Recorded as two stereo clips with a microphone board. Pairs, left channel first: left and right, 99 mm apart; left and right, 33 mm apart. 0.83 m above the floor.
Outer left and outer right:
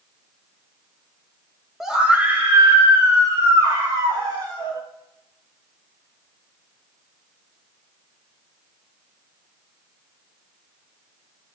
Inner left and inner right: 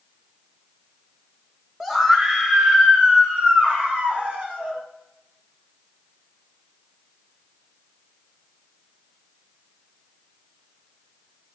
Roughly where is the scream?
Centre.